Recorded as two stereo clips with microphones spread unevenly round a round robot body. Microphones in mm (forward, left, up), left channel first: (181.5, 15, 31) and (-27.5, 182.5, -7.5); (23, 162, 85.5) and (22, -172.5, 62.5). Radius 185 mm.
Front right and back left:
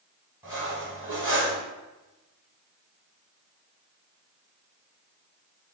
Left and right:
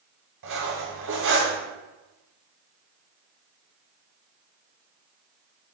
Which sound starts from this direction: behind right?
Cutlery clinking, at 0.4 s.